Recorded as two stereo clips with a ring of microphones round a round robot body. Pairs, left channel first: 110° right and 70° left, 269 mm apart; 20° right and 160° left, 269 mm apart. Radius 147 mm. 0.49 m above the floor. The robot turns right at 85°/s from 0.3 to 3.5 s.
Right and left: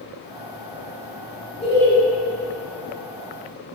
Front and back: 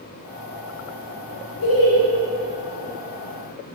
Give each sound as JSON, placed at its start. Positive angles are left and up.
{"t": 1.6, "sound": "laughter", "azimuth_deg": -50, "distance_m": 1.2}